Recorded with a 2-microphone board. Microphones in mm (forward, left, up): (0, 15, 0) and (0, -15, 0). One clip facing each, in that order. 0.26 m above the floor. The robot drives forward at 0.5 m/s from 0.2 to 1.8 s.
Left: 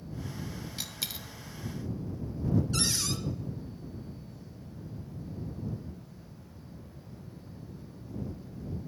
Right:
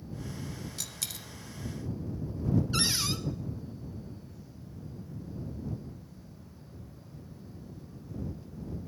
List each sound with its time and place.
0.8 s a dropped coin: 25° left (ahead or behind), 0.7 m; by 1.3 s 20° left (ahead or behind), 0.9 m
2.7 s a cupboard door: 20° right (ahead or behind), 1.1 m